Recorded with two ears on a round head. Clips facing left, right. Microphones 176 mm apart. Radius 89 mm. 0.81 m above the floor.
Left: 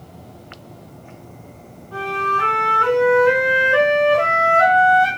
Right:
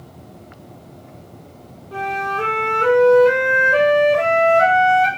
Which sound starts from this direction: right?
A flute, at 1.9 s.